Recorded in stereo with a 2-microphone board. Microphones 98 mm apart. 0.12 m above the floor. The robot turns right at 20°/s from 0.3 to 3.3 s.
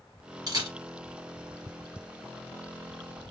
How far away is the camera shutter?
About 2.0 m.